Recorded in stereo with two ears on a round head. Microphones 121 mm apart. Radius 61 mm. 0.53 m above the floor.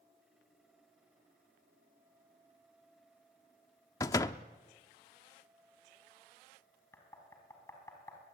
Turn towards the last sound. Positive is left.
turn(degrees=20)  # may be behind; listen again after turning